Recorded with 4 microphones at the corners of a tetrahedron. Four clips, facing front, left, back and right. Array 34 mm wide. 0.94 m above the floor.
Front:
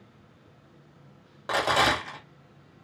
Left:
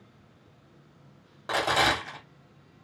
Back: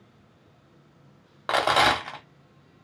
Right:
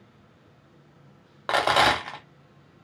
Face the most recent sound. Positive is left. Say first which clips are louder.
# right 4 dB, back 3 dB
turn(degrees=-130)